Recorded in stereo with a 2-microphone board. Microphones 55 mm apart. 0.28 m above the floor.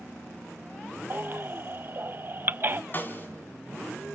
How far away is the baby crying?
About 0.6 m.